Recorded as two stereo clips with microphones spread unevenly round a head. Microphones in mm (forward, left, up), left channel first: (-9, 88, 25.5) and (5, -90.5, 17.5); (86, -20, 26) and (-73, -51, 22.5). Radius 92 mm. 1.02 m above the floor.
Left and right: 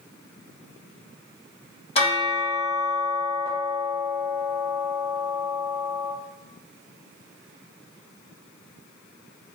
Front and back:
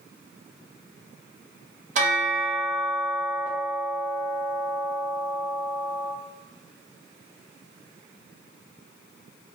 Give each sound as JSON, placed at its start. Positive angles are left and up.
{"t": 1.9, "sound": "a bell", "azimuth_deg": 145, "distance_m": 0.7}